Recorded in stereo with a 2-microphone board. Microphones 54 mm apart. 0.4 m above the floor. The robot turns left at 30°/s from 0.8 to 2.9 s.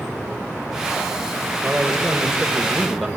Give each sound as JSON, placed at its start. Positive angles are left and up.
{"t": 1.6, "sound": "a man speaking", "azimuth_deg": -150, "distance_m": 1.8}